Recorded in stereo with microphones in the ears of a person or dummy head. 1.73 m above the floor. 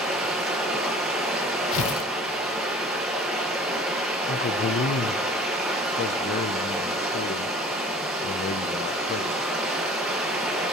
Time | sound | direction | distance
0.0 | running water | 5° right (ahead or behind) | 1.6 m
1.7 | tearing paper | 75° left (ahead or behind) | 0.7 m
4.3 | a man speaking | 45° left (ahead or behind) | 0.7 m